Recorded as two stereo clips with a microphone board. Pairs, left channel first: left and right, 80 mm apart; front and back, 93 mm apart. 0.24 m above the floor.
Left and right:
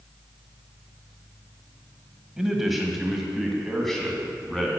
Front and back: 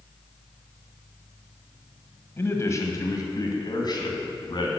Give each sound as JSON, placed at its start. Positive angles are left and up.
{"t": 2.4, "sound": "a man speaking", "azimuth_deg": -10, "distance_m": 1.5}